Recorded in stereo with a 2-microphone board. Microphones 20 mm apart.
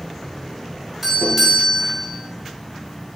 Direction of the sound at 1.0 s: 10° right (ahead or behind).